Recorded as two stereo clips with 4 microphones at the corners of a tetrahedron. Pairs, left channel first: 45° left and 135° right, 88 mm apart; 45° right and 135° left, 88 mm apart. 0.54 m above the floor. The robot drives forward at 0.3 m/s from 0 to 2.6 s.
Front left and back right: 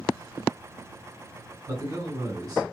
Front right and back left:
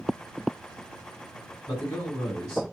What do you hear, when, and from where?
1.7 s a man speaking: 110° right, 2.0 m; by 2.6 s 120° right, 2 m